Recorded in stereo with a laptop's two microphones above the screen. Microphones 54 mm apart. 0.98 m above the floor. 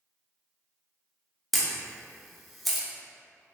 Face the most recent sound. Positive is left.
turn(degrees=0)  # may be behind; listen again after turning